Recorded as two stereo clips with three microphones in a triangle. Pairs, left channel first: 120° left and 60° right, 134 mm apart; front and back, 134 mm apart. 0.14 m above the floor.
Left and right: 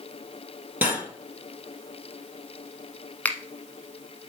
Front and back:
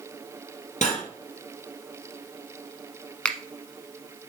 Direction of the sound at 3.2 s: 65° left.